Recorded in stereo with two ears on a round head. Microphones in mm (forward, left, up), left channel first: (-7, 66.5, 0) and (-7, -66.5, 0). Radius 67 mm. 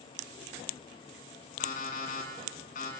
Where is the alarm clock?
55° left (ahead or behind), 6.5 m.